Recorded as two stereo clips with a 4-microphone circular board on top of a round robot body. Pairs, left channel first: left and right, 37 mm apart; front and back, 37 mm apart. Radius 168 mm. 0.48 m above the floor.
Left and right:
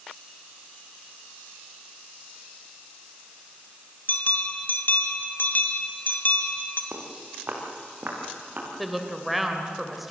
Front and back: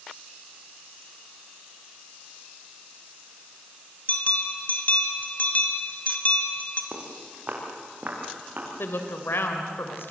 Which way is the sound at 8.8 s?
5° right.